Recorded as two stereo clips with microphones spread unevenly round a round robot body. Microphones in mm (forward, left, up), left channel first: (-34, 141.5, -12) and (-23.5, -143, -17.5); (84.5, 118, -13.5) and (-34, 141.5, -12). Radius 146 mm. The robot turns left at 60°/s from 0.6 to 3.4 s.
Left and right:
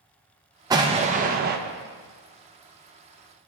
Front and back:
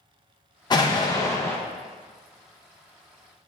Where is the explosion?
20° right, 0.6 m; by 1.6 s 75° right, 0.6 m.